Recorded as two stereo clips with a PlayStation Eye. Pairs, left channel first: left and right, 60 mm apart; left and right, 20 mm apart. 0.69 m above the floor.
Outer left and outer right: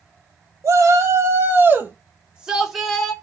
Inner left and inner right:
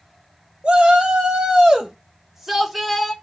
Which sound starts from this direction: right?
A shout, at 0.6 s.